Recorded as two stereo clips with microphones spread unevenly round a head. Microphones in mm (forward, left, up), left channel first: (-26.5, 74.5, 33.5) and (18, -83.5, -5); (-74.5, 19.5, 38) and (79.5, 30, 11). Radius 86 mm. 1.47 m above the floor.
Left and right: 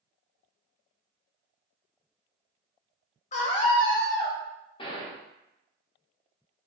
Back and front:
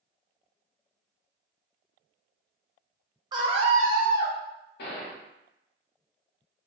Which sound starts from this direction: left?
A scream, at 3.3 s.